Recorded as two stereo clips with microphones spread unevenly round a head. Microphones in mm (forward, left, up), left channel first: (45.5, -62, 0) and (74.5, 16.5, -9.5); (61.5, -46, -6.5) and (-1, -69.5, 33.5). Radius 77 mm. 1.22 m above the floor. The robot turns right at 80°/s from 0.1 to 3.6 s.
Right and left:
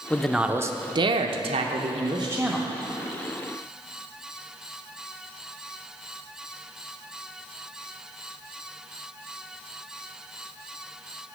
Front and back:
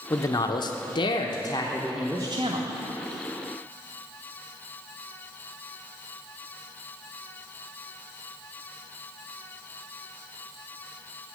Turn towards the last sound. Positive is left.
turn(degrees=-115)